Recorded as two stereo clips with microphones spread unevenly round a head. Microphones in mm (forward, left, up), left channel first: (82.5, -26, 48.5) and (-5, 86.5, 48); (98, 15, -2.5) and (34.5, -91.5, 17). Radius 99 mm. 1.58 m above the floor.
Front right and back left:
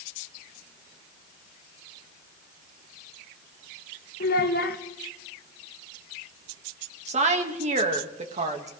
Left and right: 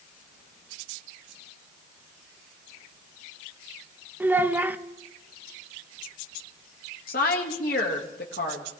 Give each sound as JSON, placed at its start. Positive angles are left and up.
{"t": 4.2, "sound": "a child speaking", "azimuth_deg": -50, "distance_m": 1.2}
{"t": 7.1, "sound": "a woman speaking", "azimuth_deg": 90, "distance_m": 2.0}